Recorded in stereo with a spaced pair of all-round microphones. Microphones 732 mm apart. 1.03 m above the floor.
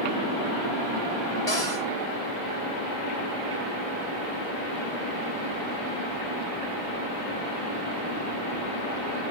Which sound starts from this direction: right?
A cupboard door, at 1.5 s.